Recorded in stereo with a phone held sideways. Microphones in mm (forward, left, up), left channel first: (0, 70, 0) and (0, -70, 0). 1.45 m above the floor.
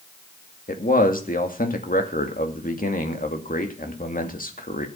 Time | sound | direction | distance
0.7 | a man speaking | 80° left | 2 m